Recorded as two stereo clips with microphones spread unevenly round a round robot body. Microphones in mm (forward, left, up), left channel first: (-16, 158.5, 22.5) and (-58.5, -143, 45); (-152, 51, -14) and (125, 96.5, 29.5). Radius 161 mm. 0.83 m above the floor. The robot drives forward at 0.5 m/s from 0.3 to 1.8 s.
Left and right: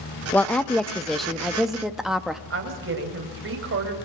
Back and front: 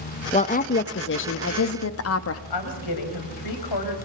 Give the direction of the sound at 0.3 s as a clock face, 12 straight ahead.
7 o'clock.